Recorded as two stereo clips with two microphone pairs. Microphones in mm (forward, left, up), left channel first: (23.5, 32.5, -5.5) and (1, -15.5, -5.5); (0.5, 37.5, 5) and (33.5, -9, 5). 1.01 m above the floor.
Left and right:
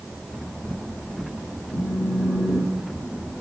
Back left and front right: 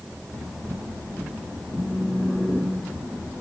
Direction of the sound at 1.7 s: 50° left.